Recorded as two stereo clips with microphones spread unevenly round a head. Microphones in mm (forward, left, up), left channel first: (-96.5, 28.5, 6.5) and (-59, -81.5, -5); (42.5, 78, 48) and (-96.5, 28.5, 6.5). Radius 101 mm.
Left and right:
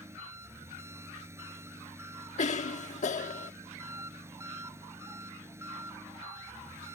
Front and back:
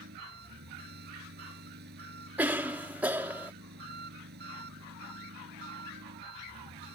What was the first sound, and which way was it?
An engine running, 140° right.